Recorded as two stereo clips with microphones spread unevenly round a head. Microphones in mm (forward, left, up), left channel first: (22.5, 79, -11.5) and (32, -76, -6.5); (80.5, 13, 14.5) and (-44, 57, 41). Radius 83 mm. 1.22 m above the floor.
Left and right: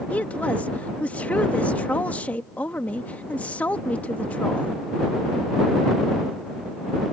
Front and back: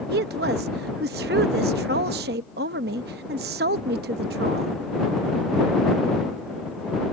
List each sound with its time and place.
0.1 s a woman speaking: 175° left